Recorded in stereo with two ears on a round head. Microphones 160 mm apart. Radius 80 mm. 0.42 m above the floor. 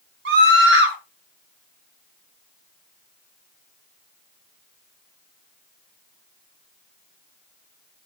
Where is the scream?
70° right (ahead or behind), 4.5 m.